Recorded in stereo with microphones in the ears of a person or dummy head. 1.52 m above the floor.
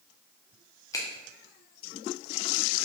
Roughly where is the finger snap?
Left.